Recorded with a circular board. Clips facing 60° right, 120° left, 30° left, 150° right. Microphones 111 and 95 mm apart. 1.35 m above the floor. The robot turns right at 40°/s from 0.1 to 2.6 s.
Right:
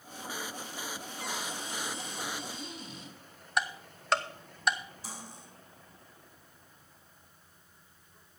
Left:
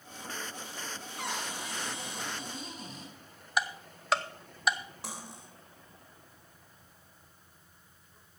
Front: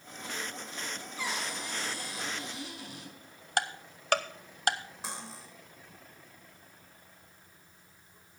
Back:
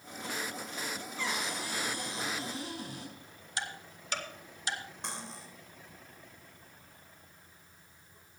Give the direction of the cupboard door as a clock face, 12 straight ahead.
8 o'clock.